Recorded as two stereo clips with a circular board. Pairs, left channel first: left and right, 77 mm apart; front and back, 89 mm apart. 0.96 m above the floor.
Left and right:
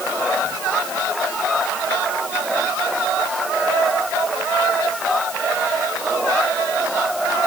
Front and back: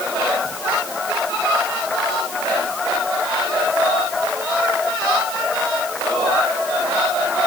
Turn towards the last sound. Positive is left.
No sound to turn to.